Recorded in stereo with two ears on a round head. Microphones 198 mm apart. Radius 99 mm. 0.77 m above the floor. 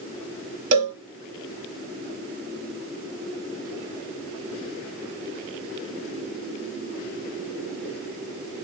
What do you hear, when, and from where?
0.7 s a cowbell: 35° right (ahead or behind), 1.0 m